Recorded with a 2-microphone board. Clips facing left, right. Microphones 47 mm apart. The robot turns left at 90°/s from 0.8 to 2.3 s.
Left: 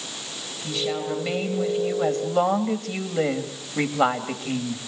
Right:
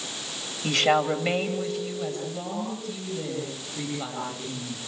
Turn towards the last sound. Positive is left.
turn(degrees=110)